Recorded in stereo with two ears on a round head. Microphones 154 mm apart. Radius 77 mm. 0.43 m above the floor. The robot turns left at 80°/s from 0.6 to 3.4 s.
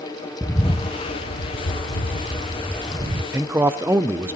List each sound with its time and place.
0.4 s a bird: 170° left, 1.1 m; by 3.2 s 40° right, 1.1 m
3.3 s a man speaking: 10° right (ahead or behind), 0.7 m